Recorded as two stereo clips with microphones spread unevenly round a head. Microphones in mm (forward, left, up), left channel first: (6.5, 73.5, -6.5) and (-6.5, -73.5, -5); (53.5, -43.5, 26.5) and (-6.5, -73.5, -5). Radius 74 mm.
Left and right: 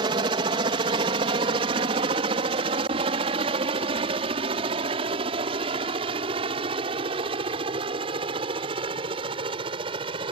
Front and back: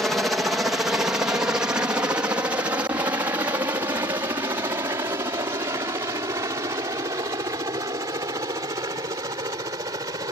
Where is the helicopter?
105° right; by 10.3 s 150° right.